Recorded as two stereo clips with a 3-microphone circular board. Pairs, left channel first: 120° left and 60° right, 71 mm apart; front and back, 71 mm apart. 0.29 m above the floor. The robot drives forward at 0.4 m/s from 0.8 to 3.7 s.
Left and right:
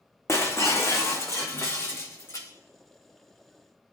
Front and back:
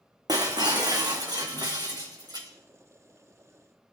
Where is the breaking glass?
165° left, 2.5 m; by 2.5 s 170° left, 3.5 m.